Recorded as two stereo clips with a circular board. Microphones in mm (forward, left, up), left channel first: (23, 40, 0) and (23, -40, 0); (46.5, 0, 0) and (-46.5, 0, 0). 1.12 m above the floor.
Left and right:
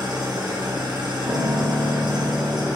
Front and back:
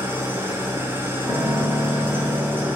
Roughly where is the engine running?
Behind right.